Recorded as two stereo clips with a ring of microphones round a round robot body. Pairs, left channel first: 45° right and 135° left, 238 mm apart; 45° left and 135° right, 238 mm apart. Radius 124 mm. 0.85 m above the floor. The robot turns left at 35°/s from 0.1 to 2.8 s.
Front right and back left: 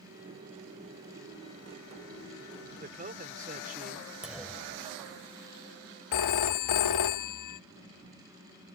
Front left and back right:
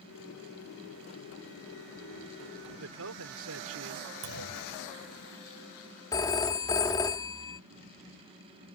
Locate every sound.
2.8 s a man speaking: 165° right
4.2 s a clunk: 135° right
6.1 s a phone ringing: 30° right